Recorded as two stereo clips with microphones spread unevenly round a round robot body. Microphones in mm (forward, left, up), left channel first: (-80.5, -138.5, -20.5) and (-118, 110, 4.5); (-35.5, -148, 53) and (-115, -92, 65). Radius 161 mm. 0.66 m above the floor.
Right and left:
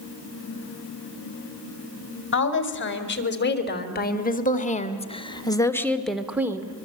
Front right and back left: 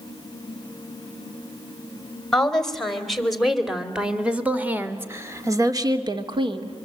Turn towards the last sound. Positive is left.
turn(degrees=175)